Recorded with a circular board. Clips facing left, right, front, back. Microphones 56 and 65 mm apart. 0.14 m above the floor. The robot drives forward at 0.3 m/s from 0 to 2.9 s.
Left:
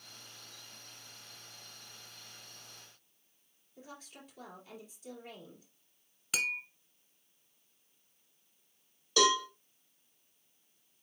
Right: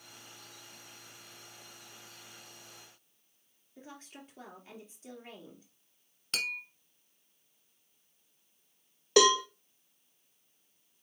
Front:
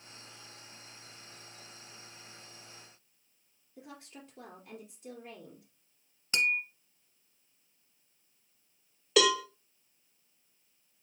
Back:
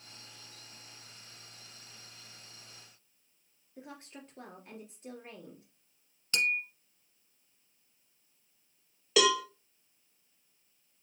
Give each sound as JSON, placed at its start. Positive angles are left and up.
{"t": 3.8, "sound": "a woman speaking", "azimuth_deg": -140, "distance_m": 2.5}
{"t": 6.3, "sound": "tapping", "azimuth_deg": 25, "distance_m": 0.9}
{"t": 9.2, "sound": "a cowbell", "azimuth_deg": -95, "distance_m": 1.1}